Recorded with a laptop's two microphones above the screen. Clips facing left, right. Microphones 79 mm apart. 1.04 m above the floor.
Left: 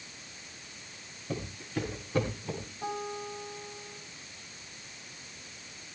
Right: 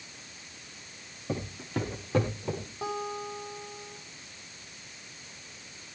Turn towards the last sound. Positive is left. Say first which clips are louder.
# right 2 dB
turn(degrees=-80)